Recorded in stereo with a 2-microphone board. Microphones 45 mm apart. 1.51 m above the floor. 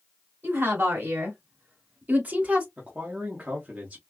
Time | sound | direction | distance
0.4 | a woman speaking | 55° right (ahead or behind) | 3 m
2.8 | a man speaking | 30° right (ahead or behind) | 1.3 m